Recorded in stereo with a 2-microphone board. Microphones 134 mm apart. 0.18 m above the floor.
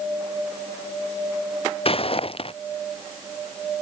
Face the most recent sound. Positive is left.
turn(degrees=45)  # may be behind; listen again after turning